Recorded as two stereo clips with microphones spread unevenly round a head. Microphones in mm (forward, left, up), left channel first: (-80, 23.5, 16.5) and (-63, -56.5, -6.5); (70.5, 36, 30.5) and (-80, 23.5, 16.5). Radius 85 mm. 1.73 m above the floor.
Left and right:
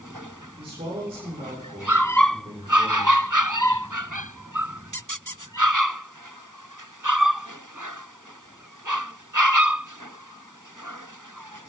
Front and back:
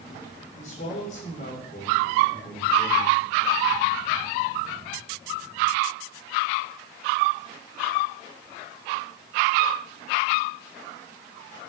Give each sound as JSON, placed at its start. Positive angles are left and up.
{"t": 0.6, "sound": "a man speaking", "azimuth_deg": -45, "distance_m": 6.5}